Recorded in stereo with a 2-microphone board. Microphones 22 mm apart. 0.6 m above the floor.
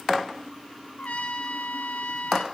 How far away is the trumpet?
About 0.6 m.